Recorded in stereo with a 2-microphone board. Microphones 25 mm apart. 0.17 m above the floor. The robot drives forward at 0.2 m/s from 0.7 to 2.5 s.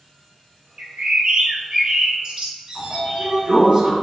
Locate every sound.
0.8 s a bird: 50° right (ahead or behind), 0.6 m; by 3.3 s 35° right (ahead or behind), 0.7 m
2.8 s a sliding door: 45° right (ahead or behind), 1.3 m